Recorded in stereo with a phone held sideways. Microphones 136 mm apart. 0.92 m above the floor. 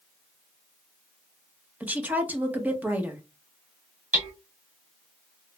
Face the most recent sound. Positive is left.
turn(degrees=-15)  # may be behind; listen again after turning